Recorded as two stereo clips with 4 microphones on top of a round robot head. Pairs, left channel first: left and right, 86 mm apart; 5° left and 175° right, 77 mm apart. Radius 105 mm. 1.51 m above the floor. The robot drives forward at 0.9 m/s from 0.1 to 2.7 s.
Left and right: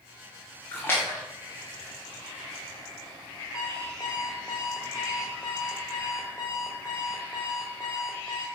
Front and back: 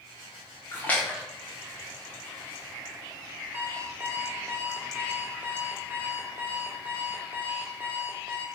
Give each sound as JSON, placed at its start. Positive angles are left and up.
{"t": 0.7, "sound": "a splash", "azimuth_deg": 40, "distance_m": 1.2}
{"t": 3.5, "sound": "an alarm clock", "azimuth_deg": 140, "distance_m": 0.8}